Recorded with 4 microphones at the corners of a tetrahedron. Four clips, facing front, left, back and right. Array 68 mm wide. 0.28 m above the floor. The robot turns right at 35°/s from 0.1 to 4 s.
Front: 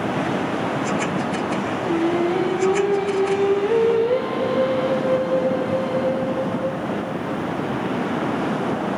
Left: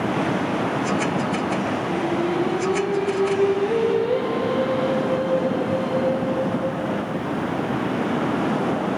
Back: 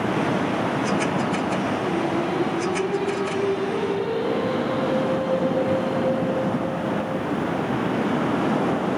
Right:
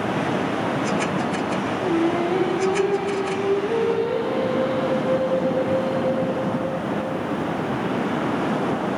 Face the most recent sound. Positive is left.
turn(degrees=-5)